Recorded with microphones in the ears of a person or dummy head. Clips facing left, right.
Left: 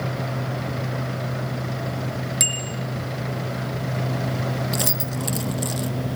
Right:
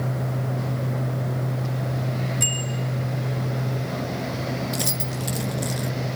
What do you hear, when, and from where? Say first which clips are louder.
2.4 s a bicycle bell: right 1 dB; 75° left (ahead or behind), 2.5 m
4.7 s keys jangling: left 2 dB; 5° left (ahead or behind), 0.6 m